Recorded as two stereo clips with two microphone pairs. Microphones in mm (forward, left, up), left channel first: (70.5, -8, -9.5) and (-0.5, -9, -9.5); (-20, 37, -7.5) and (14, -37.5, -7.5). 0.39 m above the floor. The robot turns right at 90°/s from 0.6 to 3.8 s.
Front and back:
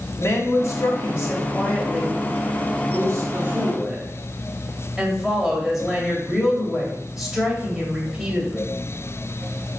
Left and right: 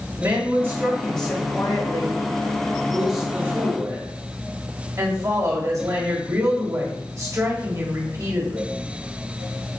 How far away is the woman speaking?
About 1.4 m.